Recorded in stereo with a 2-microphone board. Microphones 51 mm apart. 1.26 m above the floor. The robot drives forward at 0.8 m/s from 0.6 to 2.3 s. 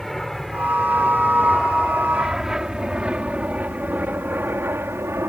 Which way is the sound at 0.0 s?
10° left (ahead or behind).